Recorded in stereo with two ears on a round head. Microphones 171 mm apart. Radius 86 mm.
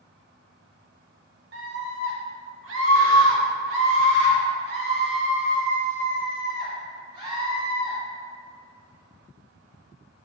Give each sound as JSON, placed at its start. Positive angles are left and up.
{"t": 1.5, "sound": "a scream", "side_deg": -65, "distance_m": 3.0}